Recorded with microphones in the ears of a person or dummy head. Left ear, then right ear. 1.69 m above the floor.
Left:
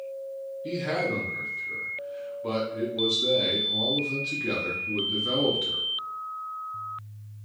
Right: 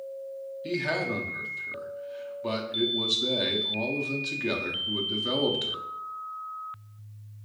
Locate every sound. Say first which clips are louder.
0.6 s a man speaking: even; 30° right (ahead or behind), 0.6 m